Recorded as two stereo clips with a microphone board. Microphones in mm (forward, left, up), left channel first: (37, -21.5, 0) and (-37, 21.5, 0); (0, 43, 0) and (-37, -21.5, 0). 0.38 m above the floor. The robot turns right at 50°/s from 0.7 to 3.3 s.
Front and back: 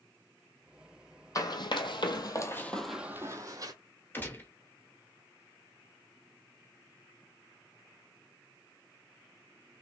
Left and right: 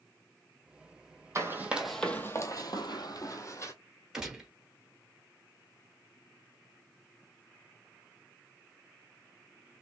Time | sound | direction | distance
1.4 | running footsteps | 75° right | 0.9 m
4.1 | a gunshot | 50° right | 1.0 m